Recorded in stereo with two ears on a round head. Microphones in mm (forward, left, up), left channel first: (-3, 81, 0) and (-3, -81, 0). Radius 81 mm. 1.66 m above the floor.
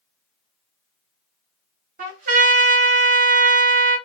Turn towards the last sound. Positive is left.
turn(degrees=-45)  # may be behind; listen again after turning